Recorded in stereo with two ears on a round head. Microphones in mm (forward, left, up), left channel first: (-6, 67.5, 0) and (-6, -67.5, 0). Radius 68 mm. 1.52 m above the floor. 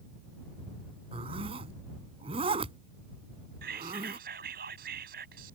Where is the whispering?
70° right (ahead or behind).